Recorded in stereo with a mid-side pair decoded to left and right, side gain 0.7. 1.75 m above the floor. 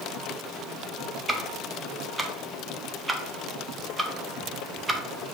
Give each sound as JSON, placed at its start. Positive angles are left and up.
{"t": 1.3, "sound": "ticking", "azimuth_deg": -15, "distance_m": 0.5}